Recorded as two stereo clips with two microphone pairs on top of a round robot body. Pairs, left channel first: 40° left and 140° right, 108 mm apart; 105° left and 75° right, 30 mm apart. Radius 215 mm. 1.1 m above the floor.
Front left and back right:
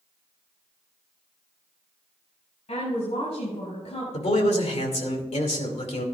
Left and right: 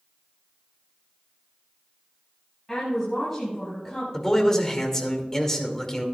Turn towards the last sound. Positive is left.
turn(degrees=30)